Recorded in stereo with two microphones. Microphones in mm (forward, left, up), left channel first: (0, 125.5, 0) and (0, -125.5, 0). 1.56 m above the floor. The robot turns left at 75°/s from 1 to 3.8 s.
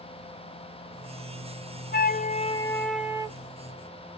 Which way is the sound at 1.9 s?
75° left.